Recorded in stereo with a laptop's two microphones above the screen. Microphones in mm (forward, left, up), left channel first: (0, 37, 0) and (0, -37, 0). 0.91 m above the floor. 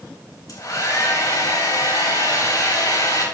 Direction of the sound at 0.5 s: 60° left (ahead or behind).